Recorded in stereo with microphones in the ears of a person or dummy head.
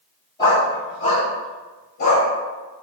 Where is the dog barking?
25° left (ahead or behind), 1.9 m; by 2.3 s 55° left (ahead or behind), 2 m.